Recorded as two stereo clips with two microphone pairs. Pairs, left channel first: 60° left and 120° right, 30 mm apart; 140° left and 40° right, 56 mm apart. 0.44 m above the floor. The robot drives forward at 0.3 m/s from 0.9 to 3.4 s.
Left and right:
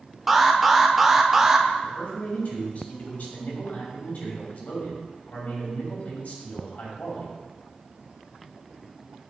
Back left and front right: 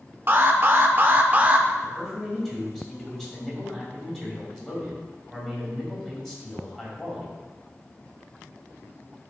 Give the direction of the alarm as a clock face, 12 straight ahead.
1 o'clock.